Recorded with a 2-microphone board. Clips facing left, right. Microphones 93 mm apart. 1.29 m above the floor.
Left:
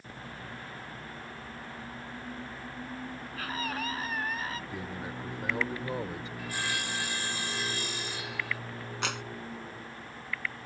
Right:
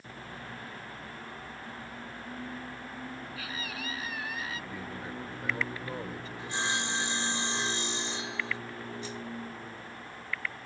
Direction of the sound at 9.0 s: 80° left.